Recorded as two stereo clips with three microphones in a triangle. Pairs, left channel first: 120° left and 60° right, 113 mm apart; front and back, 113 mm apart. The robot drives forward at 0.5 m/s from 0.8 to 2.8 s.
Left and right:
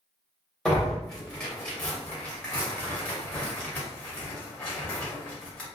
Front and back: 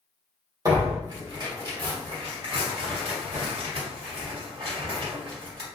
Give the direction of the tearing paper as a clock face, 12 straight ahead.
5 o'clock.